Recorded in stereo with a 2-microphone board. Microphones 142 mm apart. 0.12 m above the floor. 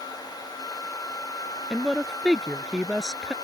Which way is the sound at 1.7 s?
5° right (ahead or behind).